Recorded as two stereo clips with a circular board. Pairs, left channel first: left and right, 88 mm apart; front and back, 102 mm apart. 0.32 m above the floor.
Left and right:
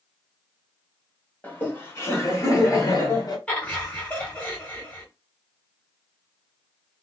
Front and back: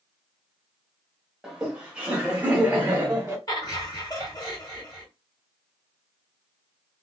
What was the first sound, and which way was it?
Laughter, 105° left.